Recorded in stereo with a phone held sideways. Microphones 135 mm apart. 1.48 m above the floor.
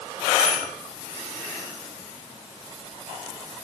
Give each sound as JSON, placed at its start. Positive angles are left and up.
{"t": 0.4, "sound": "a bicycle bell", "side_deg": -5, "distance_m": 9.5}